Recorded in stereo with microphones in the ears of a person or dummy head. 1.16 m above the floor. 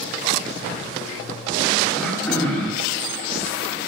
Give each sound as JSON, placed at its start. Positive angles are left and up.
{"t": 1.9, "sound": "throat clearing", "side_deg": 10, "distance_m": 1.7}